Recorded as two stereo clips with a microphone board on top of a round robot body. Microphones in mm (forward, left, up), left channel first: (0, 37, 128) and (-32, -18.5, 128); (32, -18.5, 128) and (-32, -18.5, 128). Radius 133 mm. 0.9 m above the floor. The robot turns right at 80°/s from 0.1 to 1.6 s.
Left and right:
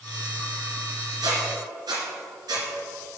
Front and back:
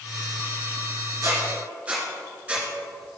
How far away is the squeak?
About 2.5 m.